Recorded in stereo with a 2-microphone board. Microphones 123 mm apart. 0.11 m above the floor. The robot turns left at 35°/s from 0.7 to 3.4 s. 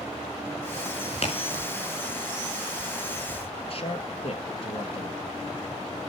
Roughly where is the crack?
Left.